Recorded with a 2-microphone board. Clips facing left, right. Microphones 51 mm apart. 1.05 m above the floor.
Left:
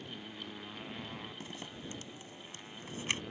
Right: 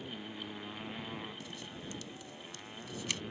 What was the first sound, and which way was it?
A motorcycle, 10° right (ahead or behind).